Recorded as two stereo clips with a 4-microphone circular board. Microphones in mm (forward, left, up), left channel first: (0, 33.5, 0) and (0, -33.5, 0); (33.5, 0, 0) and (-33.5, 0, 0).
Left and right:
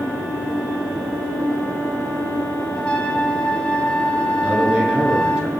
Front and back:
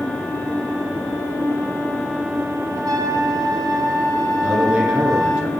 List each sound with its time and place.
2.8 s a trumpet: 160° left, 0.7 m
4.4 s a man speaking: 135° right, 1.4 m